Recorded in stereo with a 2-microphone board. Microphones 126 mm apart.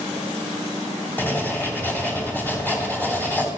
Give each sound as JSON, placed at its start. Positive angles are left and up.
{"t": 1.2, "sound": "writing", "side_deg": 15, "distance_m": 2.0}